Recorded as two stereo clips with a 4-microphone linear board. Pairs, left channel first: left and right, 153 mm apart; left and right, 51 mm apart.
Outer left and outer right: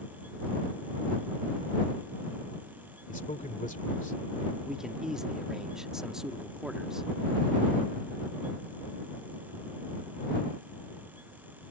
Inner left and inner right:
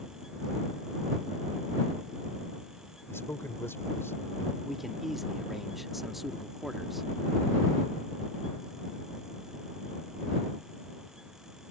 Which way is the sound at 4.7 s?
5° right (ahead or behind).